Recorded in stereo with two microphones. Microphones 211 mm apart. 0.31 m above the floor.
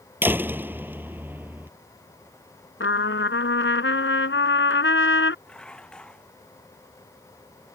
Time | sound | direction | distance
0.2 | a door slam | 10° right (ahead or behind) | ?
2.8 | a trumpet | 70° left (ahead or behind) | ?
5.5 | dishes clattering | 5° left (ahead or behind) | ?